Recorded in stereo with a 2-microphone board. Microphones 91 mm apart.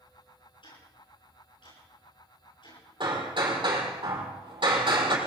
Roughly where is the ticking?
Left.